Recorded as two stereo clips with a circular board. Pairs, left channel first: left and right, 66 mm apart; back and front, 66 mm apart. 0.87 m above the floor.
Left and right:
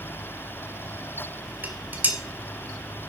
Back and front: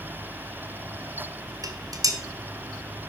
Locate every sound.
1.6 s dishes clattering: 25° right, 2 m